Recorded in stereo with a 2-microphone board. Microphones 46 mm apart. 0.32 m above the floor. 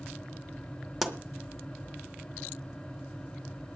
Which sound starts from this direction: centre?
A pop, at 1.0 s.